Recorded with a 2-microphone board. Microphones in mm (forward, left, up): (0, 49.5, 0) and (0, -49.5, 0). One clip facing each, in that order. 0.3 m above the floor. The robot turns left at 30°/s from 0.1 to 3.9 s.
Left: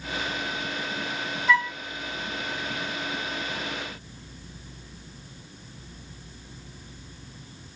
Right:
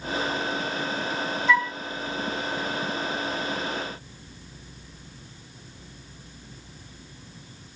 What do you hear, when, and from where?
1.5 s a flute: 5° left (ahead or behind), 0.7 m; by 1.8 s centre (ahead or behind), 0.7 m